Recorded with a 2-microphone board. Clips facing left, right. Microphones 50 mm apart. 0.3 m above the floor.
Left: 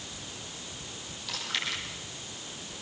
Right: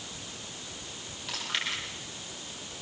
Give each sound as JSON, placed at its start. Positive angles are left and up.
{"t": 1.3, "sound": "chewing", "side_deg": -25, "distance_m": 9.0}